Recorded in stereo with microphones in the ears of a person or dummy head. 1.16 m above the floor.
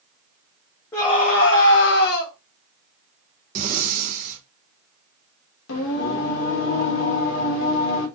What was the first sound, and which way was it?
A scream, 15° left (ahead or behind).